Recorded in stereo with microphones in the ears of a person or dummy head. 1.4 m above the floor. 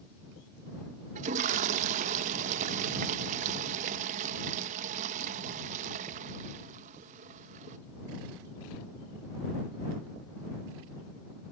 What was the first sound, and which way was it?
A toilet flushing, 45° right (ahead or behind).